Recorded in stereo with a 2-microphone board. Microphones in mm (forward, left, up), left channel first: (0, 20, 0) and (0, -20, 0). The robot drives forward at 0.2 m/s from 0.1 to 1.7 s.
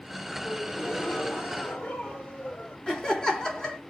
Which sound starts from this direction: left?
A gasp, at 0.4 s.